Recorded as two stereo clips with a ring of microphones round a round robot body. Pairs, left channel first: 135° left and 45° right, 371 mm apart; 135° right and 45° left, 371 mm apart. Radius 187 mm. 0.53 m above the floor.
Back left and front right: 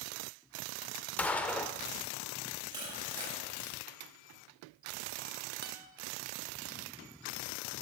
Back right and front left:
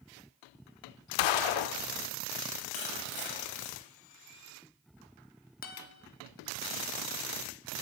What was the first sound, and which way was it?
A gunshot, 140° right.